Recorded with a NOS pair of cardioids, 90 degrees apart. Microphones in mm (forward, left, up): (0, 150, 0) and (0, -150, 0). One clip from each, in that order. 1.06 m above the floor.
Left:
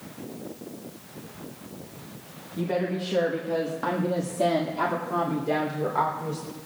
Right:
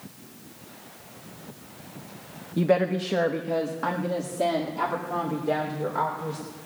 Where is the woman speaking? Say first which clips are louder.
Right 5 dB; 55° right, 1.1 m; by 6.4 s 15° left, 4 m.